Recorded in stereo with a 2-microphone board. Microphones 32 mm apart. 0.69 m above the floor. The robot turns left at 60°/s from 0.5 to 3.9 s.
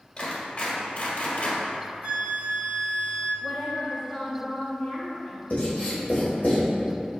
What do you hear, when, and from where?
0.2 s a clap: 25° left (ahead or behind), 1.8 m; by 1.6 s 70° left (ahead or behind), 1.8 m
2.0 s a flute: 115° right, 0.9 m; by 3.3 s 170° left, 0.9 m
3.4 s a woman speaking: 50° left (ahead or behind), 0.8 m; by 6.5 s 40° left (ahead or behind), 0.8 m
5.5 s writing: 55° left (ahead or behind), 1.3 m